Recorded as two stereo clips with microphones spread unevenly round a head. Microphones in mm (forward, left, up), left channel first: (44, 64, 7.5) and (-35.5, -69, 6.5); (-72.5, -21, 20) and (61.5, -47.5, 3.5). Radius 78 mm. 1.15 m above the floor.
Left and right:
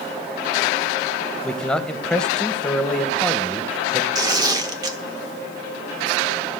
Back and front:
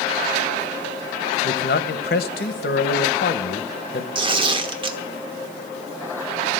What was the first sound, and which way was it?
A man speaking, 145° left.